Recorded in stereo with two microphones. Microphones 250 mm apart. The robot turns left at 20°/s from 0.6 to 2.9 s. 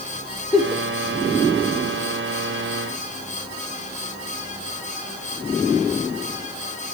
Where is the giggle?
5° left (ahead or behind), 0.6 m; by 0.8 s 10° left (ahead or behind), 0.6 m.